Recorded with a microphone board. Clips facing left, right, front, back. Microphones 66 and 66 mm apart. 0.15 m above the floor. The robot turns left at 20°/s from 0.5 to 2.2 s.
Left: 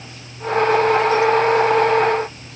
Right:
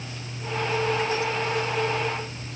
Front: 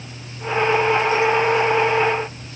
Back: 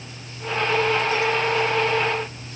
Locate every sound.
Only background noise.